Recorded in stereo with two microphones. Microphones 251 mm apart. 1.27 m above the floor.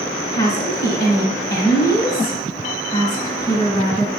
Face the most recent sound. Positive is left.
turn(degrees=35)  # may be behind; listen again after turning